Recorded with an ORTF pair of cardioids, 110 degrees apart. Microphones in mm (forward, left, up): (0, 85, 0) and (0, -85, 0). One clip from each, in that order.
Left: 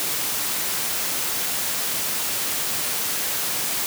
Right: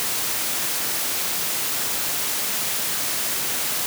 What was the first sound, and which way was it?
Only background noise.